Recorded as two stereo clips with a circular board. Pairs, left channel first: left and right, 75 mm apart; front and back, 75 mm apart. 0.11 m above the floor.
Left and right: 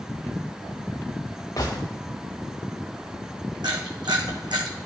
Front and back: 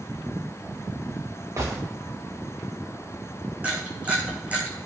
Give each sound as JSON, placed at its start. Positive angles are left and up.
{"t": 1.6, "sound": "a gunshot", "azimuth_deg": 130, "distance_m": 2.5}
{"t": 3.6, "sound": "a camera shutter", "azimuth_deg": -110, "distance_m": 2.5}